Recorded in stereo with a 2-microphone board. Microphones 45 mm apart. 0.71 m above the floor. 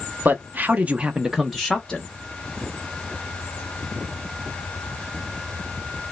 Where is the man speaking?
40° right (ahead or behind), 0.8 m; by 2.1 s 15° left (ahead or behind), 0.8 m.